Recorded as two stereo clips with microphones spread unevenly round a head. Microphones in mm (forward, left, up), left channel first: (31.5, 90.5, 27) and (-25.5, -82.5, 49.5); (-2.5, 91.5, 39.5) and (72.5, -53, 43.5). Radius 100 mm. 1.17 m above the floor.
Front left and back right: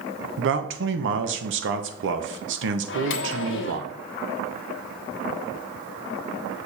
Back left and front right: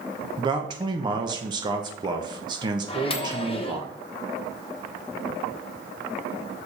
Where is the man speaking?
130° right, 1.0 m.